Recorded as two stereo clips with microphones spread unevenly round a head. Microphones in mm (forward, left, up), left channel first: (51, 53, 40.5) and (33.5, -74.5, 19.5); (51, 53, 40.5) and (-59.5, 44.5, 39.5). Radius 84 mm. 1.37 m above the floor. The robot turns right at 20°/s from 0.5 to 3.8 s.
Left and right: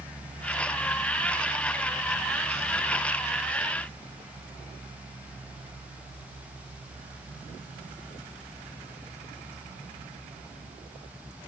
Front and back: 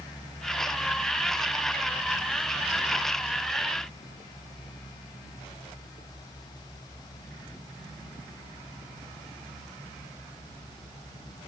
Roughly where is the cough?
I don't hear a cough.